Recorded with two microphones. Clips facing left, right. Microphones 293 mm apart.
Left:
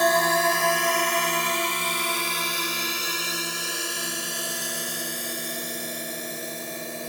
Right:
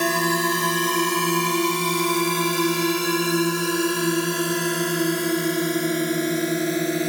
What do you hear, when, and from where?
0.0 s a drone: 35° right (ahead or behind); by 7.1 s 75° right (ahead or behind)